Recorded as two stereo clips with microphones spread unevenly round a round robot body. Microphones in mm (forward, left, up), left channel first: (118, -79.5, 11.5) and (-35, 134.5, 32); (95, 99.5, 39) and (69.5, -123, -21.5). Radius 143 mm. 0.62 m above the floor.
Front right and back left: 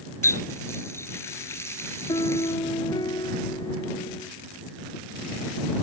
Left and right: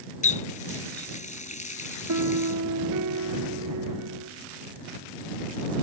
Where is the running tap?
25° left.